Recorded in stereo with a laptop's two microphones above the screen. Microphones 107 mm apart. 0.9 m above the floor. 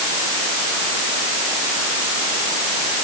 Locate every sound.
Only background noise.